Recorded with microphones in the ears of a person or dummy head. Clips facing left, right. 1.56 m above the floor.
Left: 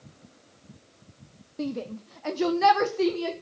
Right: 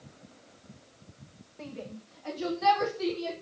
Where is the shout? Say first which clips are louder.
Left 10 dB; 60° left (ahead or behind), 1.1 m; by 3.3 s 70° left (ahead or behind), 1.8 m.